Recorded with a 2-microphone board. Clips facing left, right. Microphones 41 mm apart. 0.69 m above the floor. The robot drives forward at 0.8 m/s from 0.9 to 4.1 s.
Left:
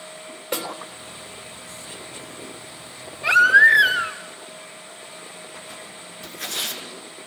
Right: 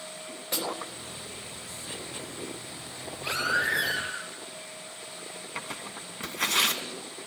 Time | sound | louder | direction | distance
0.5 | a snare drum | left 4 dB | 45° left (ahead or behind) | 3.5 m
3.2 | a baby crying | left 14 dB | 85° left | 3.5 m
5.5 | tearing paper | right 1 dB | 80° right | 2.5 m